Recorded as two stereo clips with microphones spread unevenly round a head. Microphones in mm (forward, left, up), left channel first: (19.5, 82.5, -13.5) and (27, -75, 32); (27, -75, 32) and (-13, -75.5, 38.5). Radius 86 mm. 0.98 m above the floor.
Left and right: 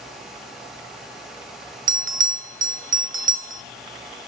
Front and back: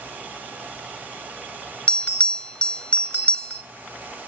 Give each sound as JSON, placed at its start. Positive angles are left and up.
{"t": 1.9, "sound": "a bell", "azimuth_deg": -45, "distance_m": 1.1}